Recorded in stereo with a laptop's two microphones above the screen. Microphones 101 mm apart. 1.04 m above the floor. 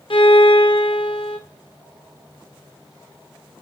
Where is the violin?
60° left (ahead or behind), 1.8 m.